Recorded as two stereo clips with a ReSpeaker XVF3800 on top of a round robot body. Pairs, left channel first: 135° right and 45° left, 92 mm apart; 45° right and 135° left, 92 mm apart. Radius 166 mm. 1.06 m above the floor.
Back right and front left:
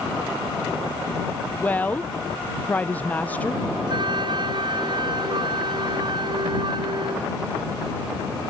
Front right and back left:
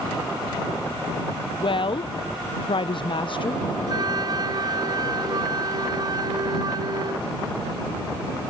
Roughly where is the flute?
Left.